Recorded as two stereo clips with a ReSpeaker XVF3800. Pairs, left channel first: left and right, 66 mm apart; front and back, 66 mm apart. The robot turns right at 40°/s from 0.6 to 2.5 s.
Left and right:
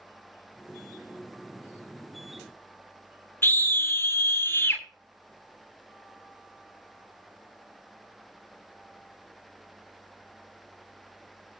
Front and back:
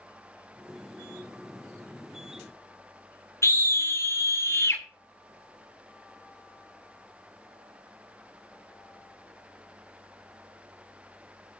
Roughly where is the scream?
Ahead left.